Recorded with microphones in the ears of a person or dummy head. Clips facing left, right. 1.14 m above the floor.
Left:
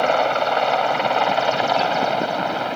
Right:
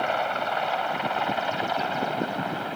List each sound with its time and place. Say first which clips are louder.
0.0 s a helicopter: left 8 dB; 75° left (ahead or behind); by 2.8 s 80° left